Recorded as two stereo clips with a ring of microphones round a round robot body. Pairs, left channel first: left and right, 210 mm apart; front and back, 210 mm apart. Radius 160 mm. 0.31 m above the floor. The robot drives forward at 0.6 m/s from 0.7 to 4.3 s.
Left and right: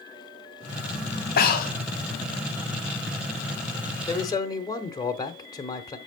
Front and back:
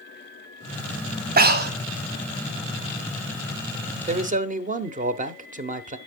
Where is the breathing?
140° left, 1.5 m; by 1.7 s 145° left, 1.7 m.